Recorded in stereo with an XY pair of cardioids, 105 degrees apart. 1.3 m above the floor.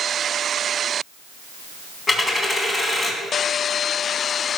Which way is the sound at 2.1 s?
30° left.